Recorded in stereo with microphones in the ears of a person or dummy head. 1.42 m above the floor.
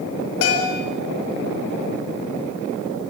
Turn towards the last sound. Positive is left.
turn(degrees=75)  # may be behind; listen again after turning